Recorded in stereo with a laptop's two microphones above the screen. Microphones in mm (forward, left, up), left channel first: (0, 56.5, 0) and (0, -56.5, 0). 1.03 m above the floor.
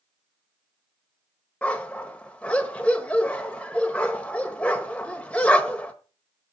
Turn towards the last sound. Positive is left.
turn(degrees=10)  # may be behind; listen again after turning